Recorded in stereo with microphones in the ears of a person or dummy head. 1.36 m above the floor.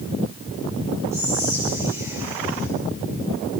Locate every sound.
1.1 s whispering: 10° right (ahead or behind), 6 m